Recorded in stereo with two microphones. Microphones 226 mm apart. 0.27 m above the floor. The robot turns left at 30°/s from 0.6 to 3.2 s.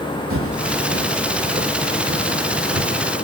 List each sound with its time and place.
0.3 s footsteps: 70° right (ahead or behind), 0.9 m; by 3.0 s 50° right (ahead or behind), 1.8 m